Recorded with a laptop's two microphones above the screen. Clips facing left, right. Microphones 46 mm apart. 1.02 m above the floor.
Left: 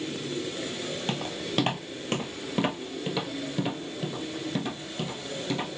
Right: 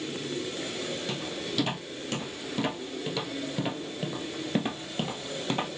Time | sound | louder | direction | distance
1.1 | footsteps | left 2 dB | 55° left (ahead or behind) | 1.6 m